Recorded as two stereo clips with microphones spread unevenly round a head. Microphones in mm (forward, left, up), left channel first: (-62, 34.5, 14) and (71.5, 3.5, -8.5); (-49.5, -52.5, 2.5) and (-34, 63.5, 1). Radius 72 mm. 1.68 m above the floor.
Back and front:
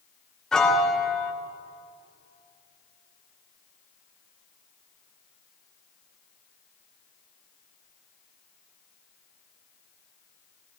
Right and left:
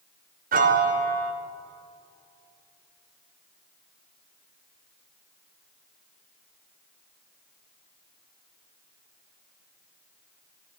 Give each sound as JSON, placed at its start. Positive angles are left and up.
{"t": 0.5, "sound": "a piano", "azimuth_deg": 80, "distance_m": 1.3}